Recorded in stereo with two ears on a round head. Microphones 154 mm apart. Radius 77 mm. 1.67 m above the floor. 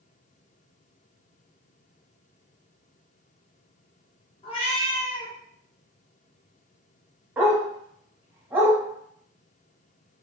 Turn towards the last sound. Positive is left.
turn(degrees=-10)  # may be behind; listen again after turning